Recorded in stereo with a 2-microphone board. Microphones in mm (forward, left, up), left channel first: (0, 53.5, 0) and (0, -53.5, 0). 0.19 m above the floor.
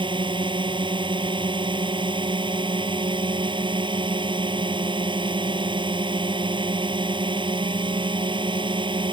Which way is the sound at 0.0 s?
50° right (ahead or behind).